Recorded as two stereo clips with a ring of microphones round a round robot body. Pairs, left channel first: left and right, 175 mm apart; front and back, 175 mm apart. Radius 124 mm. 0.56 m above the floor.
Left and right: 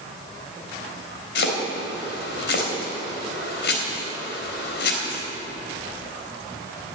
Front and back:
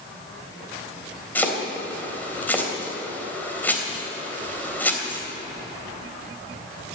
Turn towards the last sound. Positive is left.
turn(degrees=80)